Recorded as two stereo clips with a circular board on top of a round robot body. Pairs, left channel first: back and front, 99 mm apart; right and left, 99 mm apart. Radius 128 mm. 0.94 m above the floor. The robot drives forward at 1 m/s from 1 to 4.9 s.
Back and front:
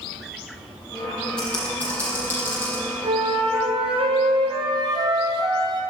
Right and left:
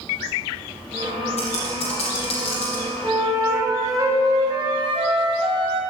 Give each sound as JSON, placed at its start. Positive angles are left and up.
{"t": 1.4, "sound": "typing on a keyboard", "azimuth_deg": -100, "distance_m": 5.0}
{"t": 3.0, "sound": "a flute", "azimuth_deg": 25, "distance_m": 3.0}